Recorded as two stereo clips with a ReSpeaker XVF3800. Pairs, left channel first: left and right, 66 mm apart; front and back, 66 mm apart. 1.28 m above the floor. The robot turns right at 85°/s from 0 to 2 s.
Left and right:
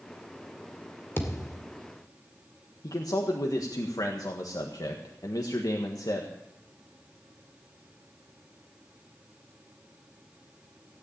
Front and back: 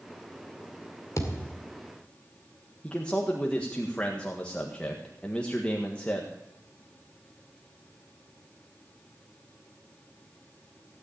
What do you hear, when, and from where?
1.2 s a thud: 40° left, 2 m; by 1.7 s 80° left, 2 m
2.8 s a man speaking: 75° left, 1.5 m